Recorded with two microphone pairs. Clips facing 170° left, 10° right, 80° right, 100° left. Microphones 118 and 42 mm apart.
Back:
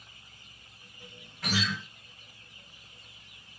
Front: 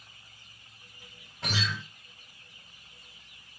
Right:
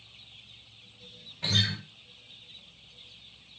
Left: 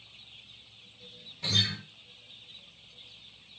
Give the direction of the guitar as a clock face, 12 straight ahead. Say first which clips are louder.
Back 2 dB, right 1 dB; 2 o'clock.